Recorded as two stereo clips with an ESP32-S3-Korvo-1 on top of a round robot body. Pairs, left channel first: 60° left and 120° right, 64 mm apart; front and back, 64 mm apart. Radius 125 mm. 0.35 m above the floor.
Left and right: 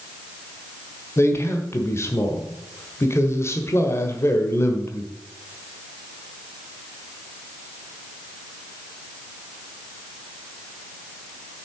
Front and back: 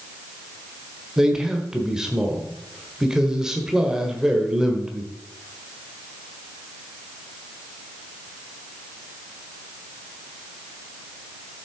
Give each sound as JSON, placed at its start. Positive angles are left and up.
{"t": 1.2, "sound": "a man speaking", "azimuth_deg": 100, "distance_m": 1.5}